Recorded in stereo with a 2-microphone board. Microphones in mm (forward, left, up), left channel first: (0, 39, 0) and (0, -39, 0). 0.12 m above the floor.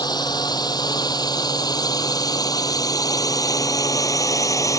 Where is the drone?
60° left (ahead or behind); by 4.8 s 45° left (ahead or behind).